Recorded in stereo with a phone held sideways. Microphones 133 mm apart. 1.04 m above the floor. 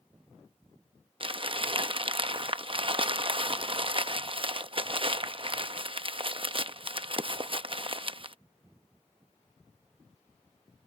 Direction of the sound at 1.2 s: 40° right (ahead or behind).